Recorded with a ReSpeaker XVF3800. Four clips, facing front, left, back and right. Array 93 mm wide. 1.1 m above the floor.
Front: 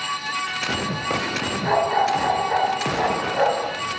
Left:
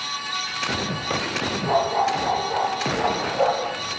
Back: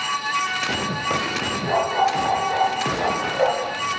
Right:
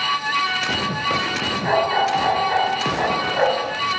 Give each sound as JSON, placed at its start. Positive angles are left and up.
{"t": 1.6, "sound": "a dog barking", "azimuth_deg": -60, "distance_m": 6.0}